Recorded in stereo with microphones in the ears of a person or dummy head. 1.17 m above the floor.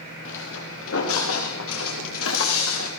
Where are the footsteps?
70° left (ahead or behind), 7 m; by 2.9 s 80° left, 7 m.